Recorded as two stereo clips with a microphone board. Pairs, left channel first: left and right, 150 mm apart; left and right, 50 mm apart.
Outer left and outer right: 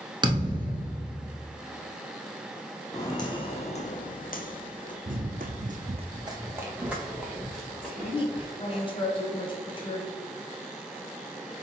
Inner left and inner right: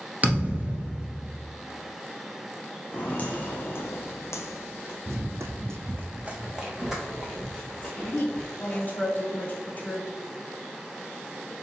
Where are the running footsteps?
65° right (ahead or behind), 0.7 m; by 8.8 s 10° left (ahead or behind), 2.5 m.